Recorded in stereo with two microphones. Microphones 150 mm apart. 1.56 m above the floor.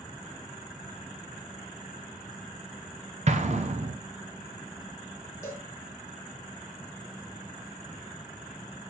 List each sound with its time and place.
3.3 s an explosion: 50° right (ahead or behind), 0.9 m
5.4 s a cowbell: 20° left (ahead or behind), 1.5 m